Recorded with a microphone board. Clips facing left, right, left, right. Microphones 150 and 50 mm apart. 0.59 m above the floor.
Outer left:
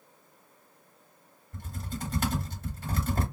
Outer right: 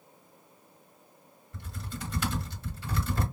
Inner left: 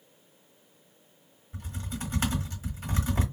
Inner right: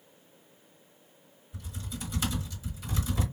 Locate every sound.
1.5 s typing on a keyboard: 50° left (ahead or behind), 1.4 m